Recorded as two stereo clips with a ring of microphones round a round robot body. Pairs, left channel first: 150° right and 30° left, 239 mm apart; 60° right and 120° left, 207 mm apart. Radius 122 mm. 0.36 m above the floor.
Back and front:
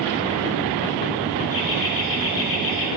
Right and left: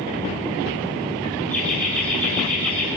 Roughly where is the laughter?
Behind right.